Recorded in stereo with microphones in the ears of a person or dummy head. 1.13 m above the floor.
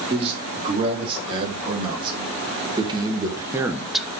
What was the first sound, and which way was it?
A man speaking, 30° right (ahead or behind).